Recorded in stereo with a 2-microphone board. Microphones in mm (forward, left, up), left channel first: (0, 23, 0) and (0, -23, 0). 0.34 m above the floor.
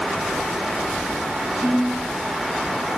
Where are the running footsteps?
No running footsteps in this recording.